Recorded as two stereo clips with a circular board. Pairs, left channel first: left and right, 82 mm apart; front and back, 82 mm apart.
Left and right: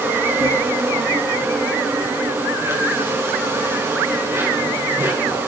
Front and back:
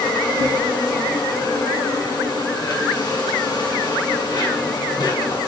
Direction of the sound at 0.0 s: 35° right.